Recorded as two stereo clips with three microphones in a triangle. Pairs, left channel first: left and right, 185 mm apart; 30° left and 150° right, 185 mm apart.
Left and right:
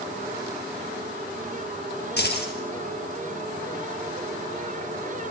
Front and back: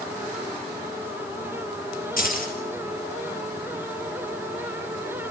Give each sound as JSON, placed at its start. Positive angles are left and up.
{"t": 2.2, "sound": "keys jangling", "azimuth_deg": 65, "distance_m": 3.5}